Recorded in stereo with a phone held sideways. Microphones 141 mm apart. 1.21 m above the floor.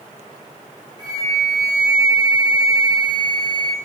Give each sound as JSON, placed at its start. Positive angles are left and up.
{"t": 1.0, "sound": "a flute", "side_deg": -30, "distance_m": 3.0}